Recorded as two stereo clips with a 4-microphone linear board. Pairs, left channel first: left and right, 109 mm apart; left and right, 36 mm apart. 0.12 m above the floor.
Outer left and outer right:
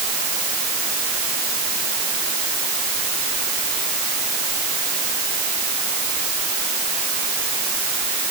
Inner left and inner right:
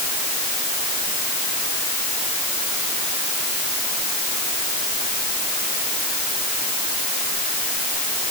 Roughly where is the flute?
No flute in this recording.